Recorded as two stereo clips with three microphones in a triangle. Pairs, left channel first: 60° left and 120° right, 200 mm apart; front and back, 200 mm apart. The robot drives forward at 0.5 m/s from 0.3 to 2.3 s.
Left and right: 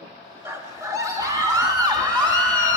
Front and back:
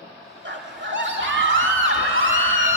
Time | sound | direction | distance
0.5 | a scream | 165° left | 1.3 m